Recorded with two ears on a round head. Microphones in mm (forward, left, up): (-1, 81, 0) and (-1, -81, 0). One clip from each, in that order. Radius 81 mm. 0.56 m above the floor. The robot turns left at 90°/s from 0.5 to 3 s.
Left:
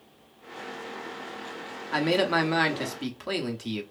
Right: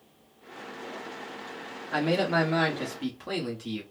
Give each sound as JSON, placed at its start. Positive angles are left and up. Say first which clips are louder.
{"t": 1.9, "sound": "a man speaking", "louder": "left 2 dB", "azimuth_deg": 140, "distance_m": 0.8}